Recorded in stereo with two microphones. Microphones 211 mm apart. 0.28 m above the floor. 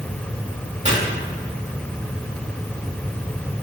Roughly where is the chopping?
Right.